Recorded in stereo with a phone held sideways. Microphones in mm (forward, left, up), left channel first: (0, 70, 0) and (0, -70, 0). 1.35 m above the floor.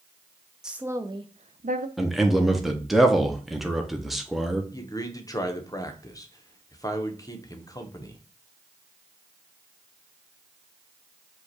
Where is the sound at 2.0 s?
Centre (ahead or behind), 0.8 m.